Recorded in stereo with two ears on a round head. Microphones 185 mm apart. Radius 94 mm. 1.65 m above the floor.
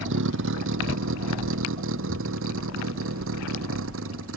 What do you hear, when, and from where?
0.0 s a vehicle: 70° right (ahead or behind); by 4.4 s 75° right (ahead or behind)